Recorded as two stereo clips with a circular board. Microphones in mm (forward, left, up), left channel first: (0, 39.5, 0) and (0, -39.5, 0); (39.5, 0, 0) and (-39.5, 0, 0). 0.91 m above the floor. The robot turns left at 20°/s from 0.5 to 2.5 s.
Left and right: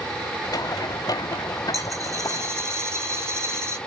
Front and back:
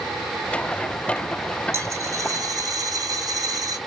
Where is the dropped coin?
130° right, 2.5 m; by 3.8 s 145° right, 2.5 m.